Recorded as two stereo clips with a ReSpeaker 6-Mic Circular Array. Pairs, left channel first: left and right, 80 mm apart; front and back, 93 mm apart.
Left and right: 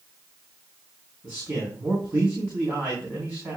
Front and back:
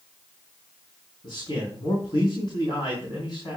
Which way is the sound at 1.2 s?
30° right.